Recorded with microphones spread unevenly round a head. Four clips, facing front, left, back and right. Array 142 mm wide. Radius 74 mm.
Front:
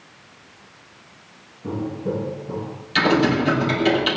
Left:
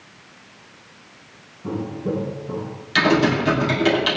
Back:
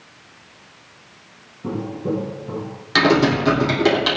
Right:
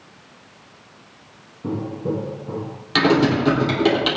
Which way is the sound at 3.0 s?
130° right.